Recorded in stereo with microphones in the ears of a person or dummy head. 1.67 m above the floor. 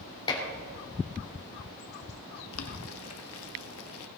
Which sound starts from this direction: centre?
Dishes clattering, at 0.3 s.